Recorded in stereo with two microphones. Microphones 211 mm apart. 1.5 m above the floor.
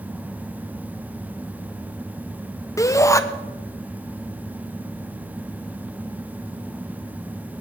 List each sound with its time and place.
2.8 s a shout: 15° left (ahead or behind), 1.1 m